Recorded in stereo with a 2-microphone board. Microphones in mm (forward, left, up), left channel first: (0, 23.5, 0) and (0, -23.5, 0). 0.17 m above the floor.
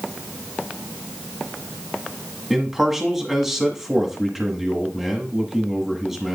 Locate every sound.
2.5 s a man speaking: 5° right (ahead or behind), 1.5 m